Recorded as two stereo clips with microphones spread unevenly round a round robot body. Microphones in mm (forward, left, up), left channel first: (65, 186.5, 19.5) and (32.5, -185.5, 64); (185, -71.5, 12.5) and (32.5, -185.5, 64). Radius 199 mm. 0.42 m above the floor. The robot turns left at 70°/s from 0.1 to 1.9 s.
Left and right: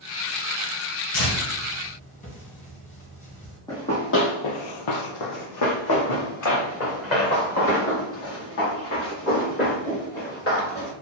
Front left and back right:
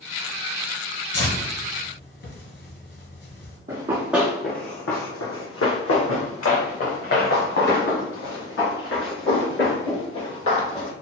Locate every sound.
1.1 s tearing paper: 70° left, 1.9 m; by 3.6 s 15° left, 1.9 m
3.7 s running footsteps: 170° left, 0.8 m; by 10.9 s 25° left, 5 m